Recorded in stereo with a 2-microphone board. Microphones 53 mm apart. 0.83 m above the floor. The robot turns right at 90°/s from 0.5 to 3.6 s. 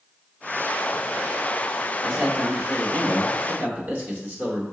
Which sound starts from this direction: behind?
A man speaking, at 2.0 s.